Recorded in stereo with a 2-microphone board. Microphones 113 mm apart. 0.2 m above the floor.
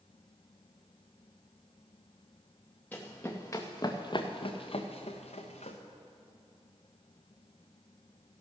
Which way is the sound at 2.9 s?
15° left (ahead or behind).